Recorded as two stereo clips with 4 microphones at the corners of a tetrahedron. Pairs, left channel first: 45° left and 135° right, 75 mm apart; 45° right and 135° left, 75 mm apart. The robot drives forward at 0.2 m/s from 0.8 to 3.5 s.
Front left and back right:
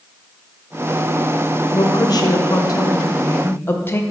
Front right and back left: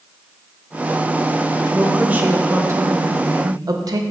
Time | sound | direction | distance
1.7 | a woman speaking | 60° left | 0.5 m